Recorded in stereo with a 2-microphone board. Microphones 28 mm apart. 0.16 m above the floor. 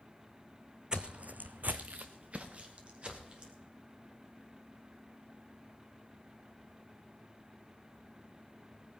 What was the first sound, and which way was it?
Footsteps, 30° right (ahead or behind).